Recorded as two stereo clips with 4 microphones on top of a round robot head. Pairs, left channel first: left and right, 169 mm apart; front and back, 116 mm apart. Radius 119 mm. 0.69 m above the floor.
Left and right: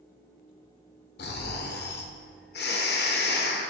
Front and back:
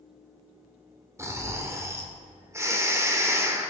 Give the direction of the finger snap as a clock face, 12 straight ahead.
I don't hear a finger snap.